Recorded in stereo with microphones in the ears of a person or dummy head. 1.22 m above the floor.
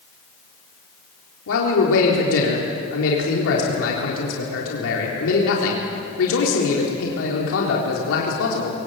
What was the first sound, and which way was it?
A man speaking, 80° left.